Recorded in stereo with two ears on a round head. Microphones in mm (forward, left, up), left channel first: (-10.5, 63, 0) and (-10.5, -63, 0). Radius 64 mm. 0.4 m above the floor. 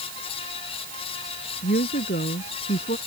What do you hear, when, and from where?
1.6 s a woman speaking: 70° left (ahead or behind); by 3.0 s 55° left (ahead or behind)